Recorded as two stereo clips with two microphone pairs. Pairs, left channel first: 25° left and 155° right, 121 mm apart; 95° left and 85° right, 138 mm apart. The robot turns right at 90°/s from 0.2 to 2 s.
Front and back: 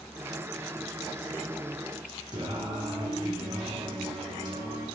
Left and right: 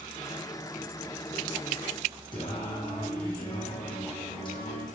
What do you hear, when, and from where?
2.3 s singing: 150° left, 3 m